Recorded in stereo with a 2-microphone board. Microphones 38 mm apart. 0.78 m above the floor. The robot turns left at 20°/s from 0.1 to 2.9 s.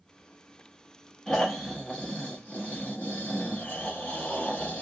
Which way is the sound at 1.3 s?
160° left.